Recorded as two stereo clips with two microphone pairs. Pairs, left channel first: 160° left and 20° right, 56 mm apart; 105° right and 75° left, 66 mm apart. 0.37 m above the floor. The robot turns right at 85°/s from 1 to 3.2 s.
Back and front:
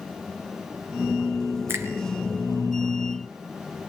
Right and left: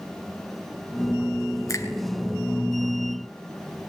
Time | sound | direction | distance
1.7 | a finger snap | 70° right | 3.5 m